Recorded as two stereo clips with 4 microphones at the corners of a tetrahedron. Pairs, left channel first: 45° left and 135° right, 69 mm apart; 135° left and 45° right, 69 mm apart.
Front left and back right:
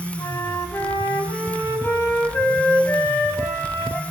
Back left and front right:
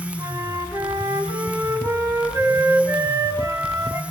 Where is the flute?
10° right, 4.5 m.